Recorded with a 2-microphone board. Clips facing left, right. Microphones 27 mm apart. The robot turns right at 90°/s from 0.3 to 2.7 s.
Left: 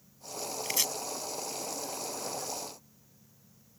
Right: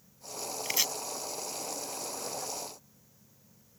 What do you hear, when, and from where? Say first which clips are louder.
0.7 s chopping: right 1 dB; 5° right (ahead or behind); by 0.9 s 15° right (ahead or behind)